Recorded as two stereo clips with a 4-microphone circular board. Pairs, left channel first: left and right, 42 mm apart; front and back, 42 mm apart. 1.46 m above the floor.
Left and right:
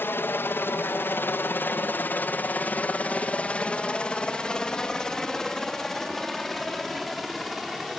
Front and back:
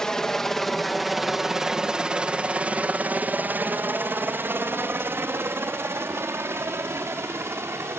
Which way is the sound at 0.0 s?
75° left.